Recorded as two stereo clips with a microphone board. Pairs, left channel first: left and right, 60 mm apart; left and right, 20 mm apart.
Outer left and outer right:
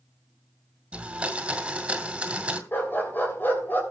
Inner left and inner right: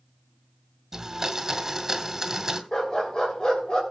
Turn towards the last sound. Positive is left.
turn(degrees=35)  # may be behind; listen again after turning